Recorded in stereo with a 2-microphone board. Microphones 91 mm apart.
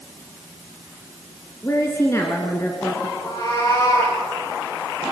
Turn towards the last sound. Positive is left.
turn(degrees=40)  # may be behind; listen again after turning